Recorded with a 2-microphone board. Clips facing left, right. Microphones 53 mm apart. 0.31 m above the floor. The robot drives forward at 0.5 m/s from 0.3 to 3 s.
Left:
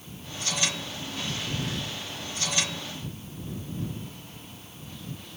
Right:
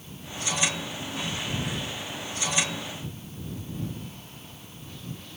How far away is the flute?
No flute in this recording.